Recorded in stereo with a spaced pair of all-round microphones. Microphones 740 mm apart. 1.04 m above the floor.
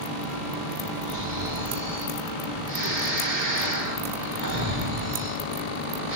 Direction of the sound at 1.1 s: 80° right.